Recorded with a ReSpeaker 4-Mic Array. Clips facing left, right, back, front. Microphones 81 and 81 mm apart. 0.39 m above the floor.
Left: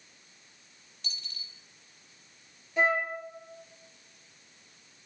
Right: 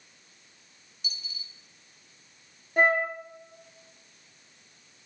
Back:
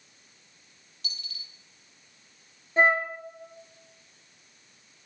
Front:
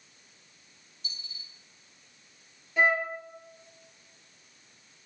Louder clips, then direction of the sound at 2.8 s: Right 4 dB, back 3 dB; 125° right.